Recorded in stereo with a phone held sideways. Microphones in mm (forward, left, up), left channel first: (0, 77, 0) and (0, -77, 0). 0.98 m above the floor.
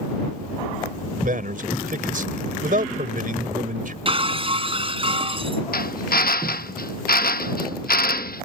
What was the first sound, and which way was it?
A man speaking, 60° right (ahead or behind).